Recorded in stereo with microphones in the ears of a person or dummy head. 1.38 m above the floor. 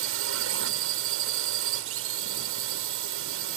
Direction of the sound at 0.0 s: 70° right (ahead or behind).